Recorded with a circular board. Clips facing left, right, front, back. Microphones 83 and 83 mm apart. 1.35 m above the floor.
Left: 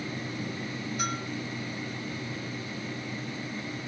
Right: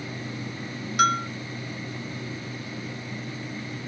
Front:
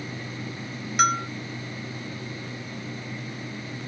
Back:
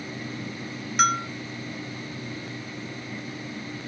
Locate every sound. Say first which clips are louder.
1.0 s a bell: right 14 dB, even; 90° right, 1.5 m